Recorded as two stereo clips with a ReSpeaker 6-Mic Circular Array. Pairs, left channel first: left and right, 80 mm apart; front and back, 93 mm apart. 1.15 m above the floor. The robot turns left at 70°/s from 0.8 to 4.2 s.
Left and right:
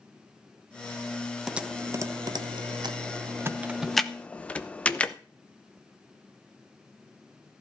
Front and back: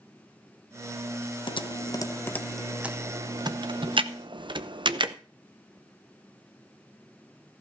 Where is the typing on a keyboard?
5° right, 0.7 m; by 5.2 s 160° left, 0.7 m.